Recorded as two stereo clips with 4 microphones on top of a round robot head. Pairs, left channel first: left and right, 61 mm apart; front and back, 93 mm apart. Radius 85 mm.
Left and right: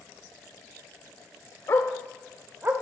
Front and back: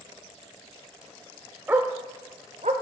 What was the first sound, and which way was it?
A dog barking, 115° left.